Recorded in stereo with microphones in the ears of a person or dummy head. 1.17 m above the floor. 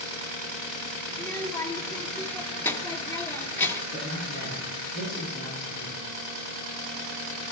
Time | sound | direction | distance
1.1 | a child speaking | 15° left (ahead or behind) | 1.7 m
3.9 | a man speaking | 50° left (ahead or behind) | 8 m